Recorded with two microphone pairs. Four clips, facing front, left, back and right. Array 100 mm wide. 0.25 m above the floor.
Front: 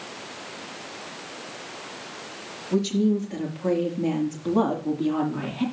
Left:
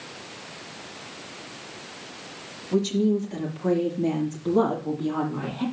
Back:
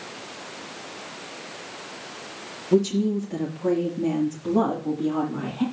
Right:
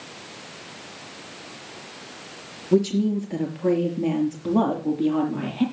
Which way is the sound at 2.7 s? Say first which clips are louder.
Right 2 dB, back 2 dB; 120° right.